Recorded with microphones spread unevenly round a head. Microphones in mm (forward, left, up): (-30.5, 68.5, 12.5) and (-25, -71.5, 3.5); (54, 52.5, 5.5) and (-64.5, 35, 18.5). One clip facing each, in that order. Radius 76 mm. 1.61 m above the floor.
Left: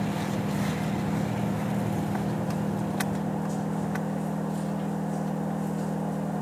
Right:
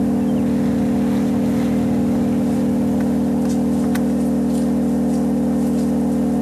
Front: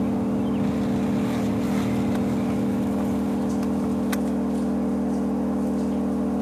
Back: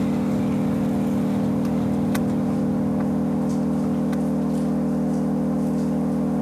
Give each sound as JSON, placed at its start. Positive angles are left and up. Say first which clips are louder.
{"t": 0.0, "sound": "an engine running", "louder": "right 13 dB, back 1 dB", "azimuth_deg": -100, "distance_m": 2.0}